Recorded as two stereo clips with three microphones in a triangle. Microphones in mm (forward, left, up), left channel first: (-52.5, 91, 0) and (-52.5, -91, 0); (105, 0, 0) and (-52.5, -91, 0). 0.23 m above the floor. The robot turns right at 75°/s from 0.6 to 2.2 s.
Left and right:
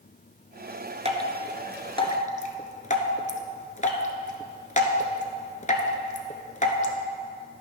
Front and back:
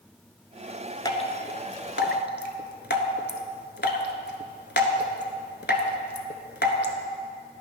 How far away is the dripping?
About 0.9 m.